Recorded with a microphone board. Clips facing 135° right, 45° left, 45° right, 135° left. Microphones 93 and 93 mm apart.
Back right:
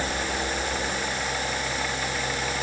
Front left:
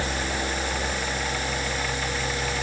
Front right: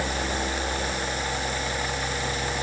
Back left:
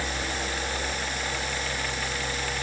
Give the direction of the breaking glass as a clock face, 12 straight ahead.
I don't hear breaking glass.